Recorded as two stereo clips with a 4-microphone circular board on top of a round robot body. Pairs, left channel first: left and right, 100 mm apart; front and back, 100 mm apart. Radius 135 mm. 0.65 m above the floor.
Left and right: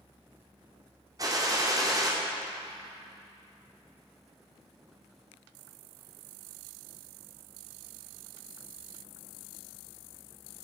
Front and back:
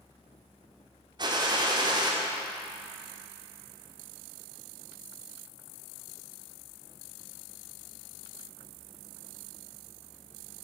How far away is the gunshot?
About 2.5 m.